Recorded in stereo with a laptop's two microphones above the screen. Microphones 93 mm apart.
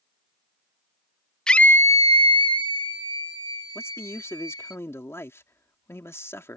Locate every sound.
1.5 s a scream: 10° left (ahead or behind); by 4.8 s 50° left (ahead or behind)
3.8 s a man speaking: 30° left (ahead or behind)